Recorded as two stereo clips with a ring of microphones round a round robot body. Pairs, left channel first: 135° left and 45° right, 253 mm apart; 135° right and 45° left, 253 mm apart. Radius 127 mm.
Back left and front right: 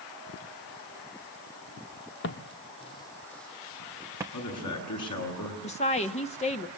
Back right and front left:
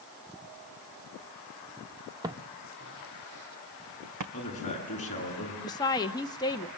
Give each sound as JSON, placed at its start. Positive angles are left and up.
{"t": 2.2, "sound": "footsteps", "azimuth_deg": 115, "distance_m": 1.0}
{"t": 4.3, "sound": "a man speaking", "azimuth_deg": 160, "distance_m": 9.0}
{"t": 5.6, "sound": "a woman speaking", "azimuth_deg": 170, "distance_m": 1.1}